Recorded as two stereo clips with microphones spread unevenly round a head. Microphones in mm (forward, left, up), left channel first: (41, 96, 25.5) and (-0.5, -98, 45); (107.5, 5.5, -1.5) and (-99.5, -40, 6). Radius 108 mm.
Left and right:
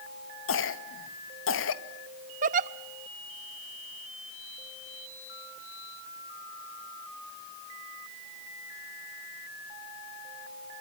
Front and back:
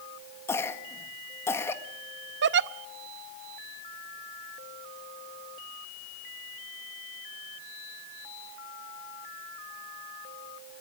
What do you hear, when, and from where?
0.5 s a cough: 90° left, 1.8 m
2.4 s a giggle: 145° right, 0.6 m